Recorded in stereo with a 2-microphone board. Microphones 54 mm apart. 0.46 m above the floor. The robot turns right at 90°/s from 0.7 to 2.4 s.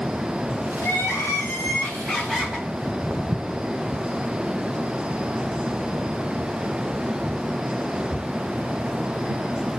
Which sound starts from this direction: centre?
Footsteps, at 2.7 s.